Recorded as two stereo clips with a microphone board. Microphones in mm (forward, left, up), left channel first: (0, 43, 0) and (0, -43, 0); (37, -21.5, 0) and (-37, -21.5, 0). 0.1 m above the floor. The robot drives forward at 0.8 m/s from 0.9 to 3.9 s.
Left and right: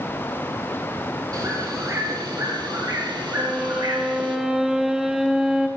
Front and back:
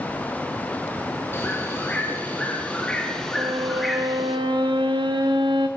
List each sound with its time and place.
1.3 s a bird: 50° right, 3.5 m; by 4.4 s 90° right, 3 m
3.4 s a violin: 170° right, 1.0 m; by 5.7 s 175° right, 1.4 m